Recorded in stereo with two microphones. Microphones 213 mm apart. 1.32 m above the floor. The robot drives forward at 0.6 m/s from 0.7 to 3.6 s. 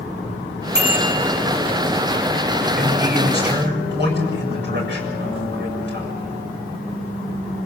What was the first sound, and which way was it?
A bicycle bell, 55° right (ahead or behind).